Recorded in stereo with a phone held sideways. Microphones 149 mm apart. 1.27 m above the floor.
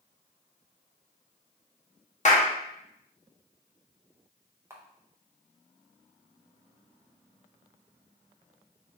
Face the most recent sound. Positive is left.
turn(degrees=-20)  # may be behind; listen again after turning